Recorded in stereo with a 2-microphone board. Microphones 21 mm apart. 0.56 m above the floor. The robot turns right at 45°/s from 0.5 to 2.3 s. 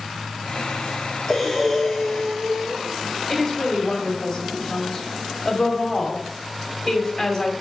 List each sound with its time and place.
1.3 s breathing: 150° left, 4.5 m; by 2.8 s 165° right, 4.5 m
3.3 s a woman speaking: 35° left (ahead or behind), 2 m